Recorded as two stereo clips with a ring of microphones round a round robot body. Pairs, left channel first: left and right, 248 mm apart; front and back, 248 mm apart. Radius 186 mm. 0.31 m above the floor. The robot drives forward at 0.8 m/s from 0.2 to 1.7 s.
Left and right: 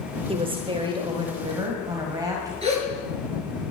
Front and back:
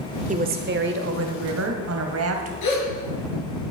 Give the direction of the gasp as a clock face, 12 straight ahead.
1 o'clock.